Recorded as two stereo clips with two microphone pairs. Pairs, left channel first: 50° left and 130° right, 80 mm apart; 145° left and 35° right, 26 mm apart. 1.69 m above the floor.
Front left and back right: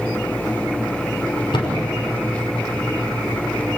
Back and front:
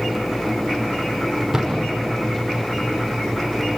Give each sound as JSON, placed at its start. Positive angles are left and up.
{"t": 1.5, "sound": "a thud", "azimuth_deg": 45, "distance_m": 5.5}